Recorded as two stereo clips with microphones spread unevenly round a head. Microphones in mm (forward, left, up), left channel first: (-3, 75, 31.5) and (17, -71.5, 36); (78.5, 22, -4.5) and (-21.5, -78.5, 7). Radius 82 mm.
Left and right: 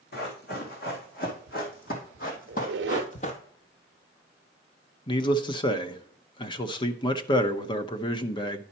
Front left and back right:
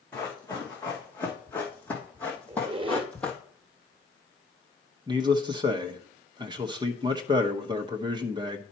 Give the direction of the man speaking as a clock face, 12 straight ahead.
7 o'clock.